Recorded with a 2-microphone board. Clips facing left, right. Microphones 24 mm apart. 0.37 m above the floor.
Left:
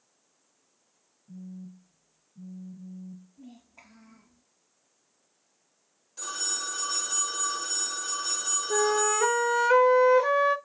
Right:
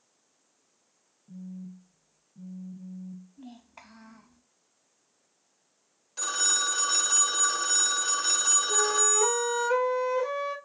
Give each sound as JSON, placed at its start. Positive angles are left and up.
{"t": 1.3, "sound": "a phone buzzing", "side_deg": -35, "distance_m": 1.2}
{"t": 3.4, "sound": "a child speaking", "side_deg": -70, "distance_m": 1.5}
{"t": 6.2, "sound": "a phone ringing", "side_deg": -40, "distance_m": 0.9}
{"t": 8.7, "sound": "a flute", "side_deg": 40, "distance_m": 0.7}